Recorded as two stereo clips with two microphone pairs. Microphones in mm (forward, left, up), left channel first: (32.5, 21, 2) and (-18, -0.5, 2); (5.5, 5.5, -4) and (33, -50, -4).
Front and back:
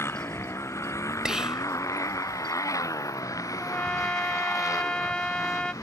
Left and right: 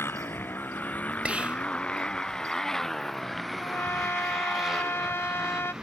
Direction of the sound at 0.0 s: 60° left.